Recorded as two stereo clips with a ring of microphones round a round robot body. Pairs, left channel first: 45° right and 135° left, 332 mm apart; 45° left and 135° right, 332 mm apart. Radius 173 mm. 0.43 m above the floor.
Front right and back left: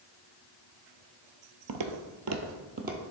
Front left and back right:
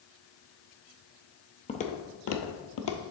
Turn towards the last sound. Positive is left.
turn(degrees=70)